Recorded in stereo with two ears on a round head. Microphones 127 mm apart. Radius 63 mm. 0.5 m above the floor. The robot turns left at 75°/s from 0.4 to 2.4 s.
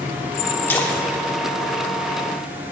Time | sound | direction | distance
0.7 | a splash | 15° left (ahead or behind) | 1.0 m